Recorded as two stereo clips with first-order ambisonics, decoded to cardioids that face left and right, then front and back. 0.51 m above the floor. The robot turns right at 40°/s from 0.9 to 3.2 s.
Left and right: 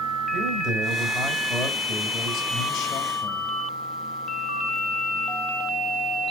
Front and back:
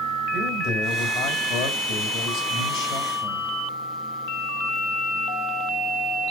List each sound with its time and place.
0.3 s a man speaking: 40° right, 2.5 m; by 3.5 s 50° left, 2.5 m